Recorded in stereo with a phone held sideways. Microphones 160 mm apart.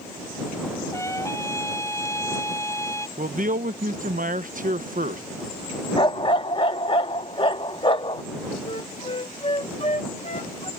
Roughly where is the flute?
Left.